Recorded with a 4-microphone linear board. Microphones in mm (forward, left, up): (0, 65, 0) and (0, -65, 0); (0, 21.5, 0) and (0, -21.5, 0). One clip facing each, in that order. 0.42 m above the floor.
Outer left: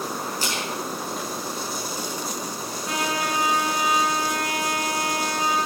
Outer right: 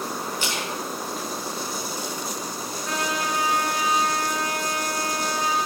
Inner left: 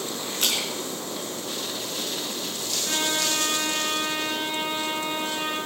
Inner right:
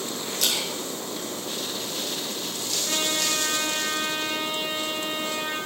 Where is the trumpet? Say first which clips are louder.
Outer left 1 dB, inner left 1 dB; 20° left (ahead or behind), 6 m.